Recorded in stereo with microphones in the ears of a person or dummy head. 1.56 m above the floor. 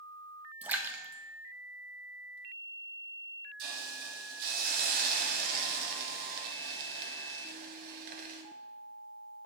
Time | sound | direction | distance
0.6 | a splash | 5° right (ahead or behind) | 0.7 m
3.6 | a hiss | 50° right (ahead or behind) | 1.1 m